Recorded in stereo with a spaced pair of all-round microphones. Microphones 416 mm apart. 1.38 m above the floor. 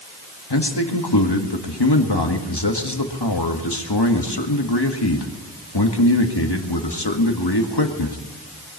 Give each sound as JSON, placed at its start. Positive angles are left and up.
{"t": 0.5, "sound": "a man speaking", "side_deg": 70, "distance_m": 1.9}